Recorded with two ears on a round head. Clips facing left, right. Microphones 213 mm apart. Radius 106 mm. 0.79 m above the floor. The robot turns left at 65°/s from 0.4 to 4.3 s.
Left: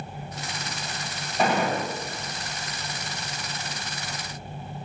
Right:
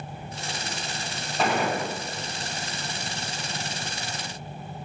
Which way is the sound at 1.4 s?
10° left.